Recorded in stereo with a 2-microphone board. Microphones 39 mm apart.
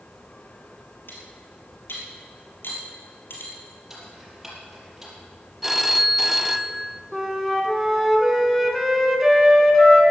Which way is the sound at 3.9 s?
5° right (ahead or behind).